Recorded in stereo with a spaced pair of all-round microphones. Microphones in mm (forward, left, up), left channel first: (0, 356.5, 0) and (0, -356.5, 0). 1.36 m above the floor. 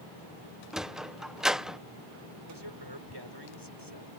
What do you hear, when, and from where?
0.7 s a sliding door: centre (ahead or behind)
2.5 s a man speaking: 35° right (ahead or behind)